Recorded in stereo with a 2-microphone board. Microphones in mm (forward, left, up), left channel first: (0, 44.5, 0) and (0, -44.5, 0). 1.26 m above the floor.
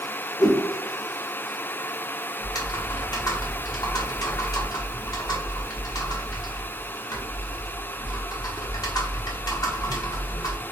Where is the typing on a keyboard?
45° left (ahead or behind), 0.9 m.